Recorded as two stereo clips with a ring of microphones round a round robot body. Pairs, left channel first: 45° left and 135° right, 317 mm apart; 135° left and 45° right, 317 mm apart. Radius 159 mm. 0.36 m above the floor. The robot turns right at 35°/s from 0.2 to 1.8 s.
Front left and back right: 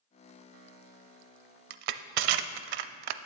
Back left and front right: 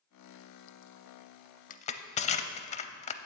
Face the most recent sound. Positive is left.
turn(degrees=-155)